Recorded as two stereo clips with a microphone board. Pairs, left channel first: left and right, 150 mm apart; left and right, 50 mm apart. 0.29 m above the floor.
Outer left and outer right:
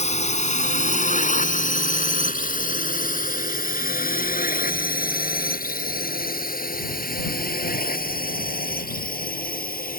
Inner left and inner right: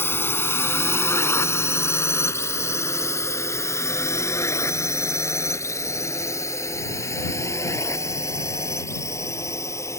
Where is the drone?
50° left (ahead or behind); by 10.0 s 75° left (ahead or behind).